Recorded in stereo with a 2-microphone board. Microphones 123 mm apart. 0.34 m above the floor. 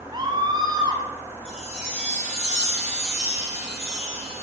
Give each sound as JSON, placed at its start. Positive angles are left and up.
{"t": 0.1, "sound": "a scream", "side_deg": -35, "distance_m": 2.5}
{"t": 1.4, "sound": "a chime", "side_deg": 65, "distance_m": 4.0}